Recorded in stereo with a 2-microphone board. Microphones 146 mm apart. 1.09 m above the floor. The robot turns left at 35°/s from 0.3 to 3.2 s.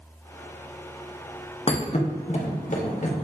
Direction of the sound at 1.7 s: 40° left (ahead or behind).